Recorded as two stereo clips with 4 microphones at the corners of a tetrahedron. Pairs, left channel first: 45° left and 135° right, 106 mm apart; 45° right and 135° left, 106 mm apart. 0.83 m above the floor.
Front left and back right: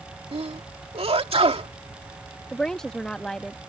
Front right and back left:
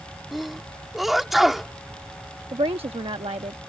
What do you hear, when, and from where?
0.3 s a sneeze: 140° right
2.5 s a woman speaking: 130° left